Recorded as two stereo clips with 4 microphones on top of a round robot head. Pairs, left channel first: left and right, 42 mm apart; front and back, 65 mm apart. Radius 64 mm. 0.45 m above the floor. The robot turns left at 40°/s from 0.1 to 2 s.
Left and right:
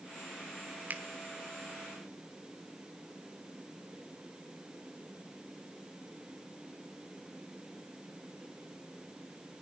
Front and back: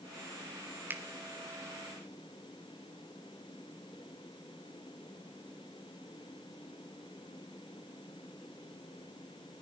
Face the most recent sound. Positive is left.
turn(degrees=-170)